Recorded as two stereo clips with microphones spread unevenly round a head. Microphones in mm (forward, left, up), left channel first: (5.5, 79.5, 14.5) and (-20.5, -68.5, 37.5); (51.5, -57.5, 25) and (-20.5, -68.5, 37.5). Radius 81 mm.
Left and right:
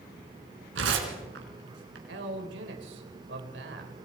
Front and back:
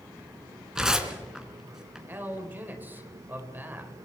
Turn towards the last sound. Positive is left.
turn(degrees=-105)